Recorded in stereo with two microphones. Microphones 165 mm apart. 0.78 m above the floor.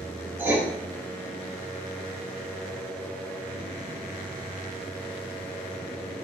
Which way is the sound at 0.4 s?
15° right (ahead or behind).